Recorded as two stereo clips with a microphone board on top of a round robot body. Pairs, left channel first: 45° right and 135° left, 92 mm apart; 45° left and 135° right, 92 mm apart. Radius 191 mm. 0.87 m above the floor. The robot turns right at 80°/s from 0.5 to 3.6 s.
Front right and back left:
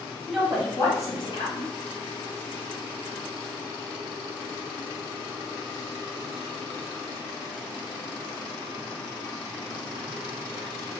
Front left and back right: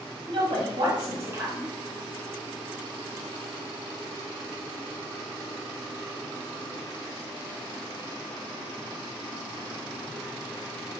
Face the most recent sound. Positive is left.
turn(degrees=110)